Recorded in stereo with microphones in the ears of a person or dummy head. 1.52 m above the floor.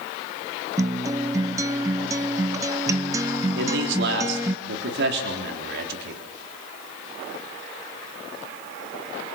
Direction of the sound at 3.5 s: 75° right (ahead or behind).